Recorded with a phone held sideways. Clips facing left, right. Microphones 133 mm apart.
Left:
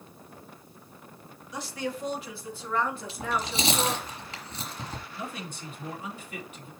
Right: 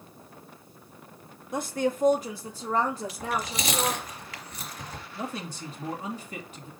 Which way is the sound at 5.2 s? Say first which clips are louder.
Right 6 dB; 35° right (ahead or behind).